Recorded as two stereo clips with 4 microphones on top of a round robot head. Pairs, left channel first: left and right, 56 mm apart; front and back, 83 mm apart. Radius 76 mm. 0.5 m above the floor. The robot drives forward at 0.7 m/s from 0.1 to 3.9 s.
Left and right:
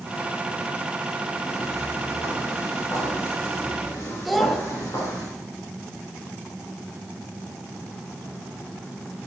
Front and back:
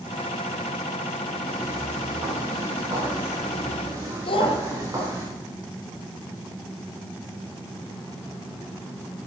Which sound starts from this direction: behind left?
Footsteps, at 1.4 s.